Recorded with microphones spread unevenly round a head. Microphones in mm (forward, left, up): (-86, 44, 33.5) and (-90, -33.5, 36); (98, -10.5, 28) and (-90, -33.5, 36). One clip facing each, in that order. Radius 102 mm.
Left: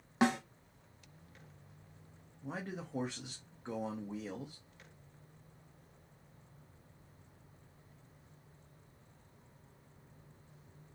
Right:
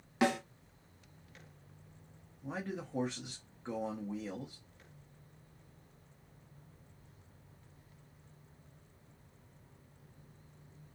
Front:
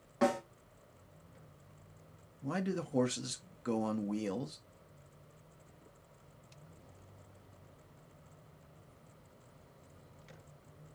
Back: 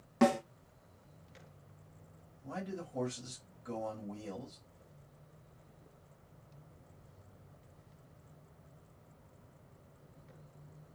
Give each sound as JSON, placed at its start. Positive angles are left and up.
{"t": 0.2, "sound": "a snare drum", "azimuth_deg": 145, "distance_m": 1.7}
{"t": 2.4, "sound": "a man speaking", "azimuth_deg": 0, "distance_m": 0.7}